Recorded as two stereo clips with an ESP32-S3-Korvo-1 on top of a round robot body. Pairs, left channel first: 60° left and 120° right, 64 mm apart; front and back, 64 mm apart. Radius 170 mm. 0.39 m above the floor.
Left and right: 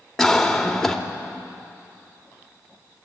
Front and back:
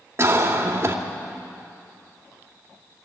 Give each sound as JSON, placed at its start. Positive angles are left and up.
{"t": 0.2, "sound": "a cough", "azimuth_deg": 145, "distance_m": 2.0}